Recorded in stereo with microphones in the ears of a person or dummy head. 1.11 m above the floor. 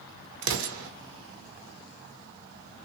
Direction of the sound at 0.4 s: 70° right (ahead or behind).